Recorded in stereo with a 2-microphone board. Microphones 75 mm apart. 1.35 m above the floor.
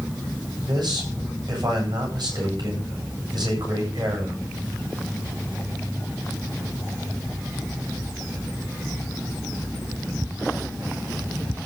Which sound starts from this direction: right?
A man speaking, at 0.6 s.